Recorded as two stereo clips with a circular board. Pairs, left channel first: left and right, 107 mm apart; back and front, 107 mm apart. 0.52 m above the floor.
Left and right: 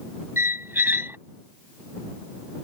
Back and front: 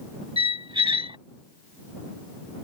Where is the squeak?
25° right.